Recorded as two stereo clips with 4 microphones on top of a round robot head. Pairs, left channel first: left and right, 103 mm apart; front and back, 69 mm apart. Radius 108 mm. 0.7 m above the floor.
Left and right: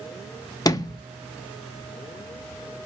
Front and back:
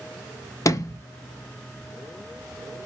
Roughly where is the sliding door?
Ahead left.